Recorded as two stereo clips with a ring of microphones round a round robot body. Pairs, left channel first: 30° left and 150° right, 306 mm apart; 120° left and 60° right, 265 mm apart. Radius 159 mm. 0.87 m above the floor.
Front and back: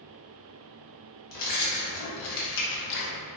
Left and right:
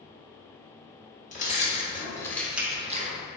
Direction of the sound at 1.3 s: 60° left.